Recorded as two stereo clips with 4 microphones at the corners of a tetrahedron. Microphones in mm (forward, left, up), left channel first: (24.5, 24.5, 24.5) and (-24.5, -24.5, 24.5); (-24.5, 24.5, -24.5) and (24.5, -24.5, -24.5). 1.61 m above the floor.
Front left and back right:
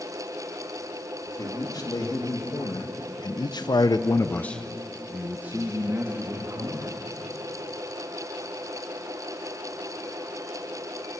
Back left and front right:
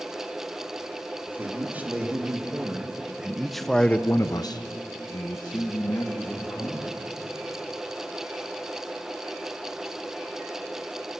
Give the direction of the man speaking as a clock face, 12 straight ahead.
11 o'clock.